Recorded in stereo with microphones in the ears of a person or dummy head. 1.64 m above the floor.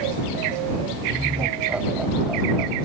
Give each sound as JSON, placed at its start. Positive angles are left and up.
{"t": 1.1, "sound": "laughter", "side_deg": -10}